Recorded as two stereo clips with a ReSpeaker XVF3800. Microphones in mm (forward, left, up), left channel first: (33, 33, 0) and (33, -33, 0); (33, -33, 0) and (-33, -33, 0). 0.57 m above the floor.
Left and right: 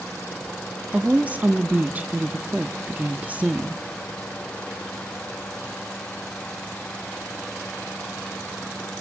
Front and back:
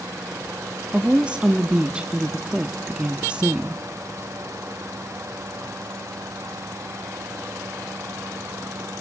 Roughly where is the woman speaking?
Behind right.